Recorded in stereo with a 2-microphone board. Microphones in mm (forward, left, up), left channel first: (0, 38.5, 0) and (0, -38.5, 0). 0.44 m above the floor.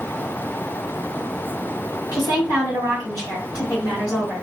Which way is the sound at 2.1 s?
45° left (ahead or behind).